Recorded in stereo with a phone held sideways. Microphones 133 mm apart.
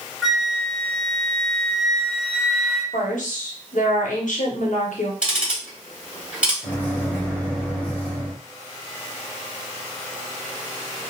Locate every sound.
0.2 s a flute: centre (ahead or behind), 0.8 m
2.9 s a woman speaking: 75° left (ahead or behind), 0.9 m
5.2 s ticking: 10° right (ahead or behind), 1.5 m
6.6 s a microwave: 10° left (ahead or behind), 1.0 m